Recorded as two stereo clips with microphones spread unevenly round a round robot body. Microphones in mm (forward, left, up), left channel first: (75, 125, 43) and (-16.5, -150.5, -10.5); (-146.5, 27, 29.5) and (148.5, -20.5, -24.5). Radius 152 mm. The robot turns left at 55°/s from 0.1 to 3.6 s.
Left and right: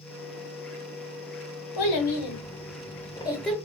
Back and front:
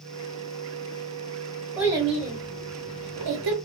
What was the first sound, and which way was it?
A child speaking, 75° left.